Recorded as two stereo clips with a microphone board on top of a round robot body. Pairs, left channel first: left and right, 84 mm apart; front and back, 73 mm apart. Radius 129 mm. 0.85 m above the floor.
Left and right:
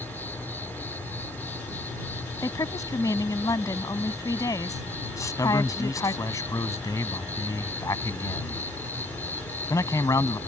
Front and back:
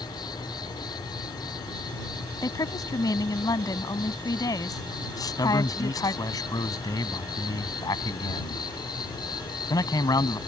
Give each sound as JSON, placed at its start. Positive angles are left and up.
{"t": 0.0, "sound": "an insect", "azimuth_deg": 20}
{"t": 2.4, "sound": "a woman speaking", "azimuth_deg": 40}
{"t": 5.2, "sound": "a man speaking", "azimuth_deg": 40}